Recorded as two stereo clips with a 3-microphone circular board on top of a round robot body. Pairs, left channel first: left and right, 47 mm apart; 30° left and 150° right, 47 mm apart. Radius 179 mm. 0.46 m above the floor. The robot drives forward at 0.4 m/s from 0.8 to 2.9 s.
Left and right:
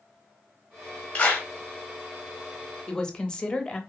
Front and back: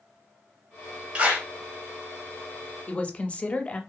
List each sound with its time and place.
1.1 s a clap: 150° left, 1.0 m; by 1.5 s 155° left, 1.1 m
2.9 s a woman speaking: 40° left, 0.8 m